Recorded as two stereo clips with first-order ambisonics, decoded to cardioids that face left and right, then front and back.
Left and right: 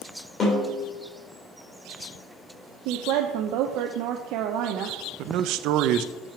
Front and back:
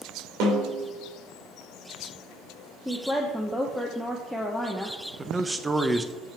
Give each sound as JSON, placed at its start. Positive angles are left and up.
{"t": 0.4, "sound": "a snare drum", "azimuth_deg": 155, "distance_m": 3.5}
{"t": 2.9, "sound": "a woman speaking", "azimuth_deg": -90, "distance_m": 0.7}
{"t": 5.2, "sound": "a man speaking", "azimuth_deg": -100, "distance_m": 0.6}